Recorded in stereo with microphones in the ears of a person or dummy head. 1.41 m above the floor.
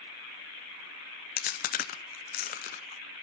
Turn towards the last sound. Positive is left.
turn(degrees=45)  # may be behind; listen again after turning